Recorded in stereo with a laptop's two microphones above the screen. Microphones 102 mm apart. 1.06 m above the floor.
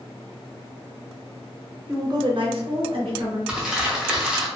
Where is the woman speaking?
20° right (ahead or behind), 0.5 m; by 3.4 s 55° right (ahead or behind), 1.2 m.